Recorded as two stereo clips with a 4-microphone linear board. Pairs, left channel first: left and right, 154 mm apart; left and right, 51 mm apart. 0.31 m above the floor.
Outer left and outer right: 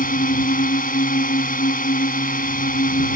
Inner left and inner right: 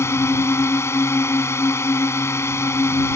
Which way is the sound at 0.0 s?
65° left (ahead or behind).